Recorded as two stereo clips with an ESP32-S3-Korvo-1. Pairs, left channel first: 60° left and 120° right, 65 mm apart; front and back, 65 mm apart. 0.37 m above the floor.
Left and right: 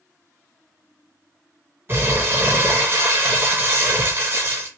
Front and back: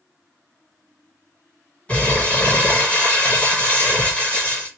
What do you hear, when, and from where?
1.9 s crumpling: 65° right, 1.8 m